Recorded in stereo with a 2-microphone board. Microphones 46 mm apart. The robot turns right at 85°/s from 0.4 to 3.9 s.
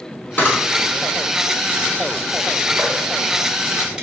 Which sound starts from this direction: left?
A camera shutter, at 0.4 s.